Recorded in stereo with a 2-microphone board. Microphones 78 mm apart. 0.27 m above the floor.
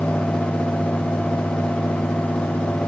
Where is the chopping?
I don't hear chopping.